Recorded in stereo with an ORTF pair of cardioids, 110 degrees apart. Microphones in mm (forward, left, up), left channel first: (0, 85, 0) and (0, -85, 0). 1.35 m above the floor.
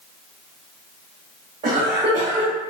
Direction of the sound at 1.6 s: 40° right.